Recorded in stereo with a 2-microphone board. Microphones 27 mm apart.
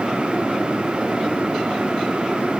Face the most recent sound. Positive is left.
No sound to turn to.